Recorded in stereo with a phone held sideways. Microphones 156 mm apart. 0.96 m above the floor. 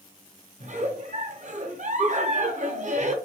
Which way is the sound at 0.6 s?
50° right (ahead or behind).